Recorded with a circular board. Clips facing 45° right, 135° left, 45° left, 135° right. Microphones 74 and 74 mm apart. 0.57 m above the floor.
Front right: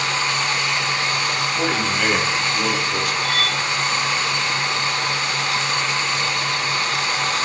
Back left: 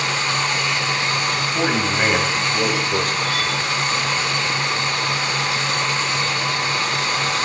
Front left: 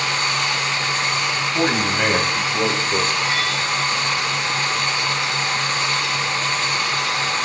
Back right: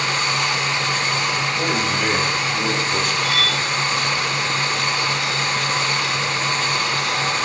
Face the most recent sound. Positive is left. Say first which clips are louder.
# even, even
turn(degrees=-15)